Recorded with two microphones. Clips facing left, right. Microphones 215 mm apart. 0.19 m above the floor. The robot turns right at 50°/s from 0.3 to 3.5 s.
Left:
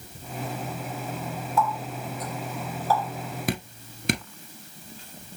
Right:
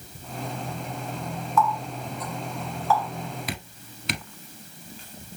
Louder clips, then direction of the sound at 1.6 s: Right 2 dB; 30° left (ahead or behind).